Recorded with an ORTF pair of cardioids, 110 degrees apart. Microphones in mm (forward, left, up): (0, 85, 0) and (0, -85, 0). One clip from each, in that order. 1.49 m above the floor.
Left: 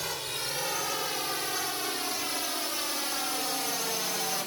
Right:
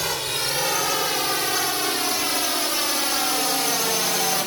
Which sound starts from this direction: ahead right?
A drone, at 0.0 s.